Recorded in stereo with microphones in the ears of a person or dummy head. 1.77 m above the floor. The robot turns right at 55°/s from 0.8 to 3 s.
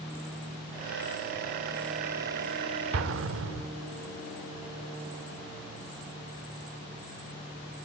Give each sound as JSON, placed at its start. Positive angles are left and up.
{"t": 2.9, "sound": "an explosion", "side_deg": -75, "distance_m": 0.5}